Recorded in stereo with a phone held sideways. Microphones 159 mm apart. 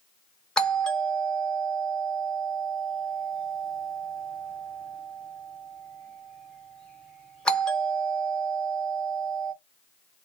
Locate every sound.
0.6 s a doorbell: 5° left (ahead or behind), 1.0 m